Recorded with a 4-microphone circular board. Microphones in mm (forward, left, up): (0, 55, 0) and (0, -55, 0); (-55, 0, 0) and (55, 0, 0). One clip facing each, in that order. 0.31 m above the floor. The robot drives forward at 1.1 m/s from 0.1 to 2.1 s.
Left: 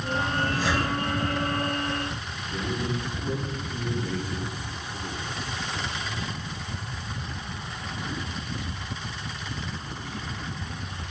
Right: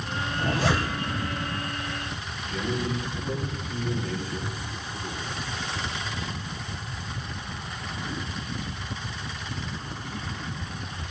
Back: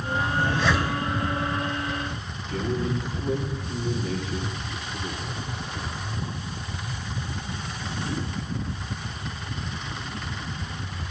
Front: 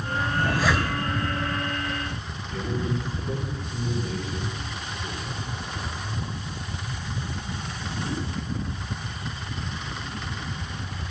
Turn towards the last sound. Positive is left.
turn(degrees=165)